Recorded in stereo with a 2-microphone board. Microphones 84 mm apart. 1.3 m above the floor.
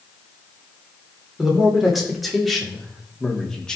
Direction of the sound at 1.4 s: 5° right (ahead or behind).